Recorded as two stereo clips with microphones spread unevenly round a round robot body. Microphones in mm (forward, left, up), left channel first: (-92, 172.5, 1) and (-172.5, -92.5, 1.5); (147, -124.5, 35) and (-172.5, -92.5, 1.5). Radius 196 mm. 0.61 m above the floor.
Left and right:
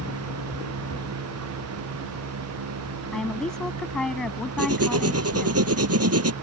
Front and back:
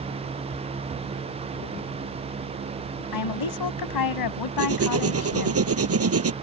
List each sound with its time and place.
3.1 s a woman speaking: 15° right
4.6 s writing: 140° right